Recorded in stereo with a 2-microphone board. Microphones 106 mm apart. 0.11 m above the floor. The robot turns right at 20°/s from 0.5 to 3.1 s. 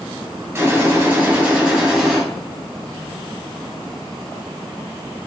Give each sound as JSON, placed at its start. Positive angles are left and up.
{"t": 0.6, "sound": "a gunshot", "azimuth_deg": -40, "distance_m": 2.5}